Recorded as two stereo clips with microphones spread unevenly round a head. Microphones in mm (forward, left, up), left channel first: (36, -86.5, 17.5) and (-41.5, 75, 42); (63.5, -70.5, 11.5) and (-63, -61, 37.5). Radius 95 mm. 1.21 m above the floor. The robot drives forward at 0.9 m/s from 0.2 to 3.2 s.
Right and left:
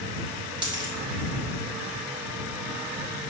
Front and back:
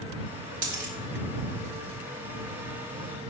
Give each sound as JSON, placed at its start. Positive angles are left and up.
{"t": 0.6, "sound": "a dropped coin", "azimuth_deg": 180, "distance_m": 1.4}